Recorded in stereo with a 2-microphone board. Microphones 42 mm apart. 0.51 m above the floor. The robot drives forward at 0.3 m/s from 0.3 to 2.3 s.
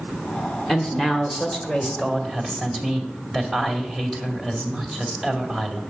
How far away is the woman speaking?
About 1.7 m.